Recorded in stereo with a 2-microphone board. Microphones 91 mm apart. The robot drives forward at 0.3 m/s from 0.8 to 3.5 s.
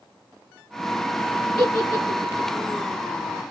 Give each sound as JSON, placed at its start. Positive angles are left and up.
{"t": 1.6, "sound": "a giggle", "side_deg": -45, "distance_m": 4.0}